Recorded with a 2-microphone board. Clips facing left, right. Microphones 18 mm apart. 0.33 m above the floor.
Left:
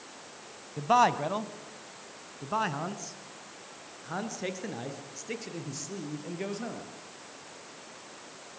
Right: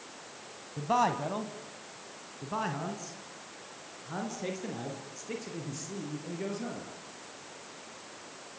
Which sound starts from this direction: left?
A man speaking, at 0.8 s.